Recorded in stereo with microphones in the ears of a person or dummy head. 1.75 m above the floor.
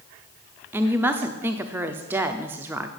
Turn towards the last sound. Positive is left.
turn(degrees=-10)  # may be behind; listen again after turning